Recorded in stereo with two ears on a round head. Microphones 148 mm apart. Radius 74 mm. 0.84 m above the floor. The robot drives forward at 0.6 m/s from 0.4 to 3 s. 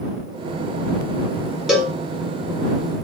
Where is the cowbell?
Centre (ahead or behind), 1.5 m.